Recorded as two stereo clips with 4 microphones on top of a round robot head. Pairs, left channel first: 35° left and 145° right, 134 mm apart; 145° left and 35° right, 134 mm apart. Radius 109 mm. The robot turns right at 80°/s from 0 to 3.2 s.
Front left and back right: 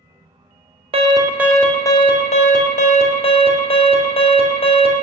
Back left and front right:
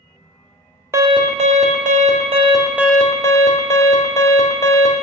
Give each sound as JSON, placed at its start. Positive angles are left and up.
{"t": 0.9, "sound": "an alarm", "azimuth_deg": -105, "distance_m": 1.5}